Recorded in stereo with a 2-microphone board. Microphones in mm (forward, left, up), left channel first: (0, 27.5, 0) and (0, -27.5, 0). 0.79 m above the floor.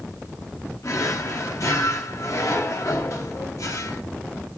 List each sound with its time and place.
0.8 s a drawer: 70° left (ahead or behind), 0.9 m